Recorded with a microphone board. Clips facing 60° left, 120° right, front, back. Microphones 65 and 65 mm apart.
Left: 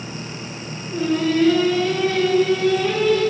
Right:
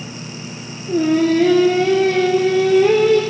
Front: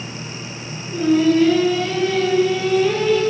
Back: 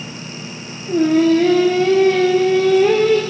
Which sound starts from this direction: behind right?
Singing, at 0.9 s.